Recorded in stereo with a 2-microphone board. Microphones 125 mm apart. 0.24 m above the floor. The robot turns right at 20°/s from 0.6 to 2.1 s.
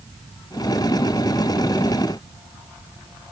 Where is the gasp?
I don't hear a gasp.